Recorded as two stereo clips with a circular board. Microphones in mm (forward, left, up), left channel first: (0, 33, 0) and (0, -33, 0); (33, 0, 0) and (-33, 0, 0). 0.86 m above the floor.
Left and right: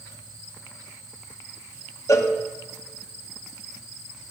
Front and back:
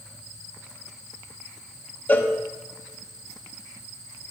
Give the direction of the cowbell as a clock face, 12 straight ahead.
10 o'clock.